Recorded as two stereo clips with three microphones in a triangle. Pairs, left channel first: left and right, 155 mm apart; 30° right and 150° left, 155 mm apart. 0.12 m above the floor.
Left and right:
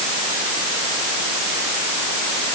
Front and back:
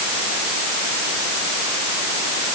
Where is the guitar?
I don't hear a guitar.